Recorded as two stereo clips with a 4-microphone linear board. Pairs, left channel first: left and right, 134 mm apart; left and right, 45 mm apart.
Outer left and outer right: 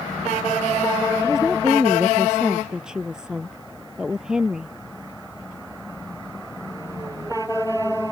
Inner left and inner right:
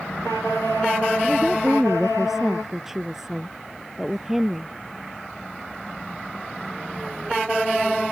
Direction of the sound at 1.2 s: 5° right (ahead or behind).